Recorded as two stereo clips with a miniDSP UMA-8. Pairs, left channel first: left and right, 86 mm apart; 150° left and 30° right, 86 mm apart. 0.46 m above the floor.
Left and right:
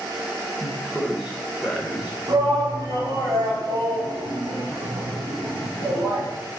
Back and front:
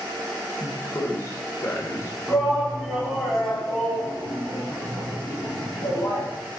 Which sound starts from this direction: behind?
A man speaking, at 0.6 s.